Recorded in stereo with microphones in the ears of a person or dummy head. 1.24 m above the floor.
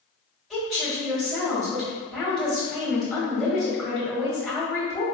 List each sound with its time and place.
0.5 s a woman speaking: centre (ahead or behind), 1.7 m